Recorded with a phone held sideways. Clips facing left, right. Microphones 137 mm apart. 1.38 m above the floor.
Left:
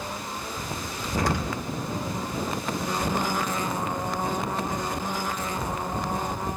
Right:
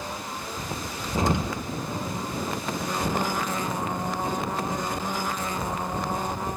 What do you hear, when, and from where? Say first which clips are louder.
1.2 s an explosion: right 2 dB; 25° right (ahead or behind), 1.2 m